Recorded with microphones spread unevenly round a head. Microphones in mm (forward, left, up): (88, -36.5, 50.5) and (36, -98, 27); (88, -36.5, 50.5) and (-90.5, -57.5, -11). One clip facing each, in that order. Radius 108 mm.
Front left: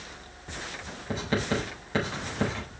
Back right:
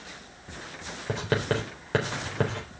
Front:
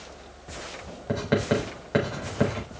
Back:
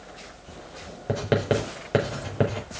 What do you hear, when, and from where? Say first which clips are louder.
1.1 s writing: back right 1 dB, back 1 dB; 125° right, 4 m